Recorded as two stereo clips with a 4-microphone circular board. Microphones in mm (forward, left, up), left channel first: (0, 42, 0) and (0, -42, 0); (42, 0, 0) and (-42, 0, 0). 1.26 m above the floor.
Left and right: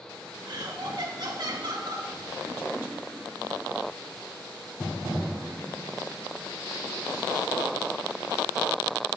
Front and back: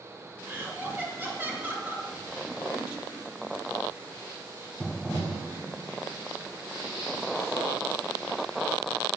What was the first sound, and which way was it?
Laughter, 120° right.